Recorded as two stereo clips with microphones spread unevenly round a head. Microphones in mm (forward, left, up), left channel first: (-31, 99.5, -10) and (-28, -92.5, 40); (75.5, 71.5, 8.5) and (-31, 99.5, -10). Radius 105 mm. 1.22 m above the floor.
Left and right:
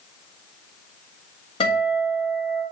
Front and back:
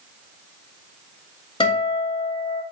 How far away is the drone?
No drone in this recording.